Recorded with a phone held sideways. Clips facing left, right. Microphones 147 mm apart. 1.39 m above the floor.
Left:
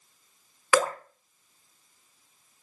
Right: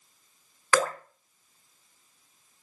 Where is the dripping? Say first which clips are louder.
Left 1 dB; 15° left (ahead or behind), 0.9 m.